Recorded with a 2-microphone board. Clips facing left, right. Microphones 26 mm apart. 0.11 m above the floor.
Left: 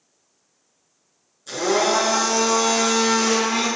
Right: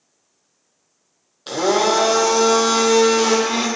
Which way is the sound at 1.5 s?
65° right (ahead or behind).